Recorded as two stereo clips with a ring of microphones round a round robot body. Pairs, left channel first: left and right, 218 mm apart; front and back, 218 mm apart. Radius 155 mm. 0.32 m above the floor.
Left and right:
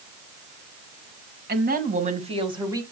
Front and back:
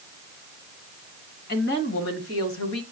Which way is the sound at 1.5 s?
50° right.